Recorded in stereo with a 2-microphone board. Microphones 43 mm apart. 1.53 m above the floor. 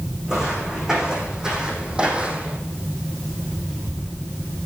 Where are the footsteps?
10° right (ahead or behind), 5.5 m; by 2.6 s 25° right (ahead or behind), 3 m.